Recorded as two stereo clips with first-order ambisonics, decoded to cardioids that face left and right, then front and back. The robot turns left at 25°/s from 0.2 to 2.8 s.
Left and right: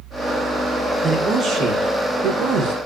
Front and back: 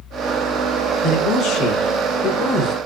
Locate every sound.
1.0 s a man speaking: 35° right, 1.9 m; by 2.9 s 80° right, 1.9 m